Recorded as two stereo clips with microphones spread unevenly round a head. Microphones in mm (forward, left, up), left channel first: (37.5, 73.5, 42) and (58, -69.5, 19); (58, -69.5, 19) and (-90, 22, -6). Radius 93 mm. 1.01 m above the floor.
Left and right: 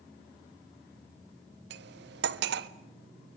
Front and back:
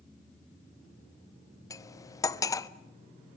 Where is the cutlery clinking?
105° right, 0.8 m.